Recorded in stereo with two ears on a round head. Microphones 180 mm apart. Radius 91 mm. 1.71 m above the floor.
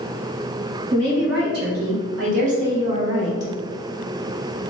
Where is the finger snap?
I don't hear a finger snap.